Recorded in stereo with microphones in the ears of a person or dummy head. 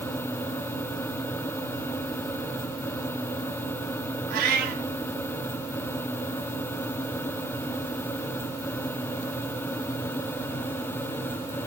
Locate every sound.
4.3 s a cat meowing: 50° right (ahead or behind), 2.0 m